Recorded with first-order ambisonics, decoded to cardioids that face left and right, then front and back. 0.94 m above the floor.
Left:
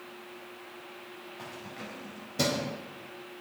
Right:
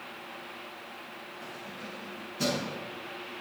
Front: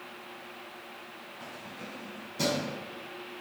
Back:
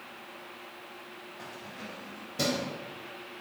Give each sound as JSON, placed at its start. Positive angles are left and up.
{"t": 1.4, "sound": "keys jangling", "azimuth_deg": 125, "distance_m": 4.0}